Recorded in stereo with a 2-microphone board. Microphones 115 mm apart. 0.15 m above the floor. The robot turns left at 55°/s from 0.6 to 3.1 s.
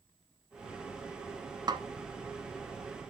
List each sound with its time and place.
1.7 s a snare drum: 40° right (ahead or behind), 0.7 m